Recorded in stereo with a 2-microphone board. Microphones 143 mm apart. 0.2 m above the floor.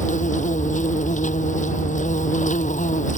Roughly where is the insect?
Left.